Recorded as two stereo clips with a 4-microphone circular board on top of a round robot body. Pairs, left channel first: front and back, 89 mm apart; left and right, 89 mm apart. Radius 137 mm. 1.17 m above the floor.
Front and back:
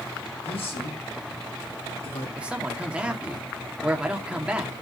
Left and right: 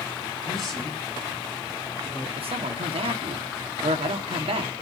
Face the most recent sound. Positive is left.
turn(degrees=-100)